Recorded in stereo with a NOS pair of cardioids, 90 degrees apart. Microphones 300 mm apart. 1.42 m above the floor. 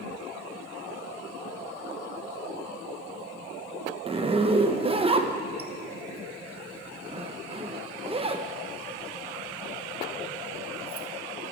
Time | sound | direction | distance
4.1 | a zipper | 20° right | 1.1 m